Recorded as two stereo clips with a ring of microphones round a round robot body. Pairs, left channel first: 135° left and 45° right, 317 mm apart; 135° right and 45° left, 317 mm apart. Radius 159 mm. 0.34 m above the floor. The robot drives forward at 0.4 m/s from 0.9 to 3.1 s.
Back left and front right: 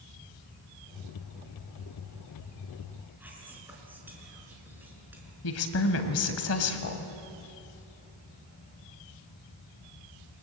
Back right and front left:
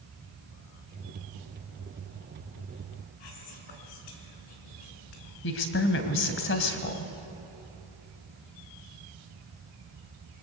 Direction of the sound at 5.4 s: 175° left.